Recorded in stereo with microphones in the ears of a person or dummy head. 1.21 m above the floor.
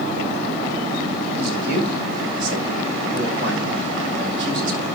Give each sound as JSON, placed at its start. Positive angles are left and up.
{"t": 1.4, "sound": "a man speaking", "side_deg": -70, "distance_m": 6.5}